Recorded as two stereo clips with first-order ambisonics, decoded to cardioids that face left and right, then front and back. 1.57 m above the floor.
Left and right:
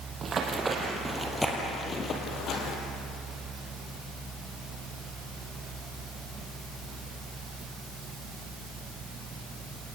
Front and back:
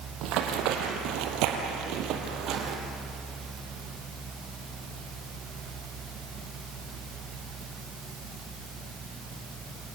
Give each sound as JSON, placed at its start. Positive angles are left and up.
{"t": 0.2, "sound": "running footsteps", "azimuth_deg": -155, "distance_m": 3.5}